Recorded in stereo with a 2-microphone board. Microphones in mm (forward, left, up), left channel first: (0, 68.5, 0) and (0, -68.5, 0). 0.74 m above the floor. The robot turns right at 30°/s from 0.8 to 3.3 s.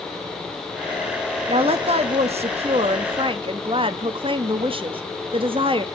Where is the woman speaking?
115° right, 0.7 m; by 5.8 s 60° right, 0.7 m.